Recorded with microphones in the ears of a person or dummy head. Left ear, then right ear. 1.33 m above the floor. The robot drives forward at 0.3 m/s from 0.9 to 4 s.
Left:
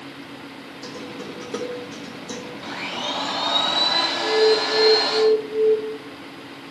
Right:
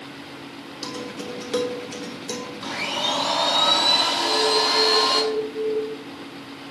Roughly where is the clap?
I don't hear a clap.